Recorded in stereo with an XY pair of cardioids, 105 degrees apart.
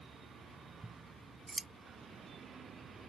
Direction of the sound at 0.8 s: 25° right.